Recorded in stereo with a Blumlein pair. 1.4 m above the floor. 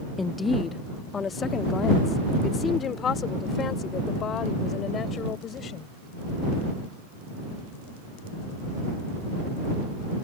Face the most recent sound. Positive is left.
turn(degrees=25)